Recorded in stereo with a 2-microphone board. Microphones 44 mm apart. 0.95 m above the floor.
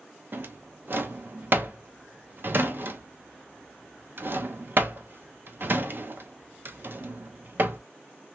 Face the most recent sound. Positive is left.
turn(degrees=-55)  # may be behind; listen again after turning